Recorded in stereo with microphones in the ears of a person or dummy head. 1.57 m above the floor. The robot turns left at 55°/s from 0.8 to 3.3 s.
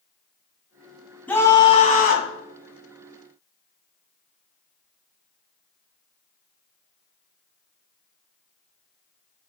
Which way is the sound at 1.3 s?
170° left.